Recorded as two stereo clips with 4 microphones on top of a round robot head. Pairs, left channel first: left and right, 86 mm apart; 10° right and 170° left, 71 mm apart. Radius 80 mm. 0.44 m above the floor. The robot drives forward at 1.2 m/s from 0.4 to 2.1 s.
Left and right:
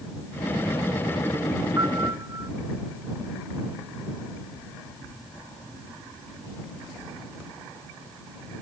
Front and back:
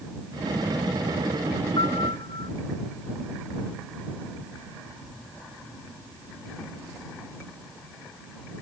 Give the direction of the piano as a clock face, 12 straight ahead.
1 o'clock.